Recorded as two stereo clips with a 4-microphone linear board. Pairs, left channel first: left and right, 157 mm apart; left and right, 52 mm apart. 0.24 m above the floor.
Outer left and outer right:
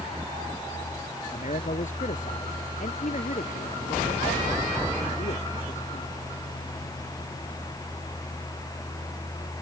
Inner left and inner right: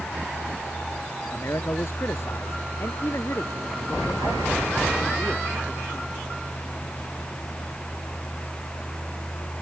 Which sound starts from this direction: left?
A man speaking, at 1.3 s.